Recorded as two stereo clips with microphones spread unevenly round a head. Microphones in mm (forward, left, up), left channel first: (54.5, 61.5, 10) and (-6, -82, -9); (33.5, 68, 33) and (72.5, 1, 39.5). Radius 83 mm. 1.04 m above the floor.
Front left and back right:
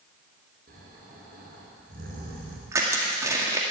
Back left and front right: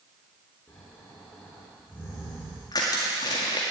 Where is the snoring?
160° right, 4 m.